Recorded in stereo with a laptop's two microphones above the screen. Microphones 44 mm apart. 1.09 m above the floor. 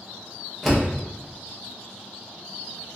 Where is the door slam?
Centre (ahead or behind), 0.6 m.